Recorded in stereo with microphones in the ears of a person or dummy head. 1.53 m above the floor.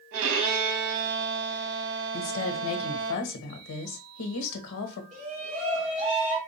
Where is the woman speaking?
75° left (ahead or behind), 1.0 m.